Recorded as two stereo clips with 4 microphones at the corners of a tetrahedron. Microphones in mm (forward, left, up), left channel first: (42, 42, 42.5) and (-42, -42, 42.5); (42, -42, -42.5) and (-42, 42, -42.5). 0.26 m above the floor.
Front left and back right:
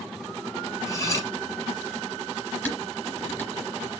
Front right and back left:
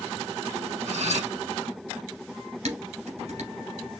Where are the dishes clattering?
120° left, 2.5 m.